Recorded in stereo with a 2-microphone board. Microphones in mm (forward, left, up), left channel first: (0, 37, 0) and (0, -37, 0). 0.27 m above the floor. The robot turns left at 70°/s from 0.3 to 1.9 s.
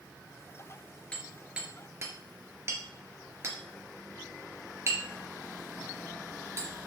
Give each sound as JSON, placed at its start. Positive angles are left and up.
{"t": 1.1, "sound": "hammering", "side_deg": 15, "distance_m": 3.5}